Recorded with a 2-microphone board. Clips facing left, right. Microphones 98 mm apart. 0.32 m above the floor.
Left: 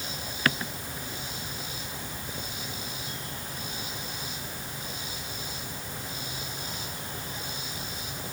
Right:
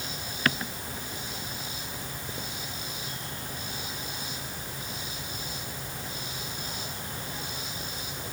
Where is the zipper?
I don't hear a zipper.